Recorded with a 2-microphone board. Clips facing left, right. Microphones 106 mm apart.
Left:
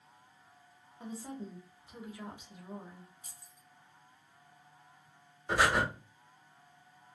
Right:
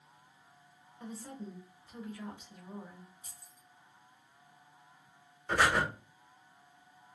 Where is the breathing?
10° left (ahead or behind), 0.9 m.